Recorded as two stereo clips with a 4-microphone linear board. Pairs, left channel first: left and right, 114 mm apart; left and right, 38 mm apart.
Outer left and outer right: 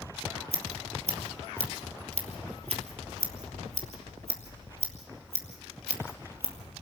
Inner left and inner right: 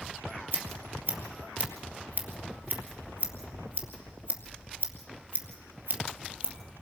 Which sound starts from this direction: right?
Scissors, at 0.5 s.